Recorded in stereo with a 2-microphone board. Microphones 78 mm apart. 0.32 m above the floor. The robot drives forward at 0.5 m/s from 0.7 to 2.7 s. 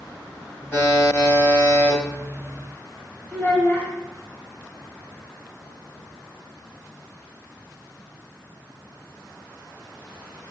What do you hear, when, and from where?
0.7 s a buzzer: 25° left (ahead or behind), 2.0 m; by 2.0 s 30° left (ahead or behind), 1.7 m
3.3 s a child speaking: 20° left (ahead or behind), 0.7 m